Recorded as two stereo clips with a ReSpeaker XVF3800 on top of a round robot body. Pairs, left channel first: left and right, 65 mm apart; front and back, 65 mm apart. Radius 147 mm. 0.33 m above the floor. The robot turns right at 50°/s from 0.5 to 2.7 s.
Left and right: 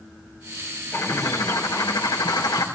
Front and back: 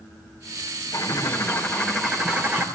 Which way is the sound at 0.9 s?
35° left.